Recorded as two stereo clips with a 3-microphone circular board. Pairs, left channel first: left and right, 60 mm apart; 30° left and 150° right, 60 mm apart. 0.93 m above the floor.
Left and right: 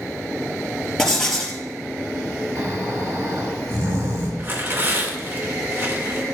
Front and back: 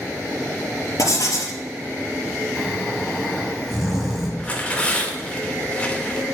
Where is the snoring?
55° right, 4.5 m.